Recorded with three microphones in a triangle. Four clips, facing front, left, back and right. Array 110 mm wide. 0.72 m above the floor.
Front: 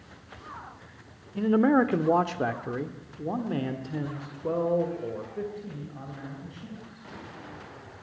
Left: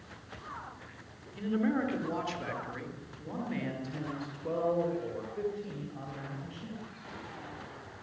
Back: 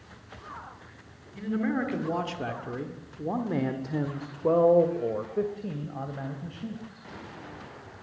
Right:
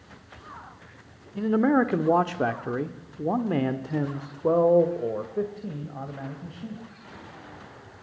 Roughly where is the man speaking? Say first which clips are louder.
Right 9 dB, front 7 dB; ahead right.